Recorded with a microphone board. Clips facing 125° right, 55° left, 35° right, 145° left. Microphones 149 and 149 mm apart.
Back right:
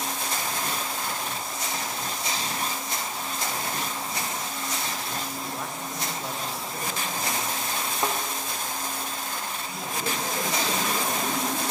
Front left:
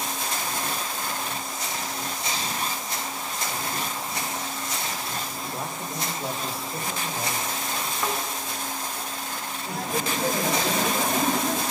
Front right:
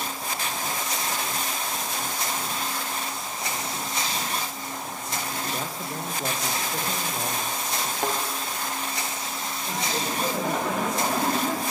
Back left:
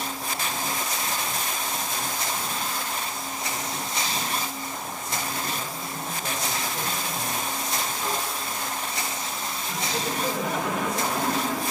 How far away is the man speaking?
About 4.5 m.